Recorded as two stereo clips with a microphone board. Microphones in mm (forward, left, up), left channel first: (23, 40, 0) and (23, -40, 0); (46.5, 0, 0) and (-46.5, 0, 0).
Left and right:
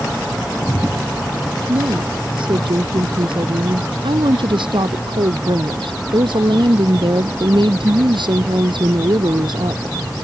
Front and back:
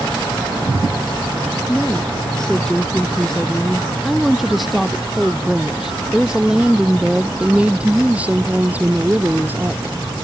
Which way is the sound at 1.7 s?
80° right.